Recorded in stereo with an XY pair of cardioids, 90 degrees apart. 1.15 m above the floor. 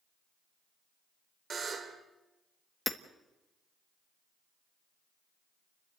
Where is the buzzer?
50° right, 2.5 m.